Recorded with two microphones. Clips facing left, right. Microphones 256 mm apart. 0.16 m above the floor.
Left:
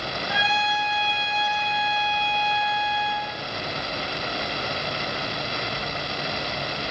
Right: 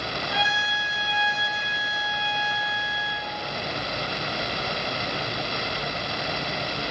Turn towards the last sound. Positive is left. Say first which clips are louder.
# left 3 dB
turn(degrees=5)  # may be behind; listen again after turning